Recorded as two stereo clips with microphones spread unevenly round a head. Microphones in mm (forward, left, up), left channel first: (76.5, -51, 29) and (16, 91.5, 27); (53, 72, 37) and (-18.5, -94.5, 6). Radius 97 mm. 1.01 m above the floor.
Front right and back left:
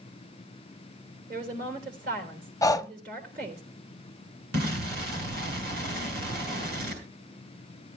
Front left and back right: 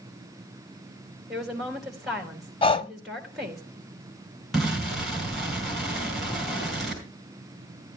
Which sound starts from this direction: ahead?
Breathing, at 2.6 s.